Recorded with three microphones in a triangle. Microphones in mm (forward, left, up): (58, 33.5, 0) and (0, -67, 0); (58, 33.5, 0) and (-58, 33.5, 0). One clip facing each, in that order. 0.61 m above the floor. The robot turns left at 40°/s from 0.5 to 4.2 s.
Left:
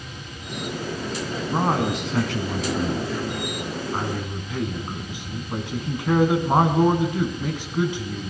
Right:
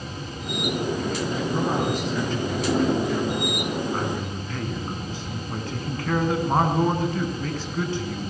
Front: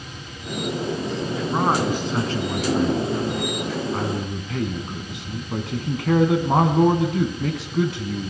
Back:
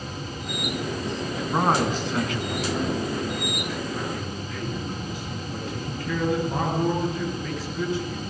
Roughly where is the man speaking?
Left.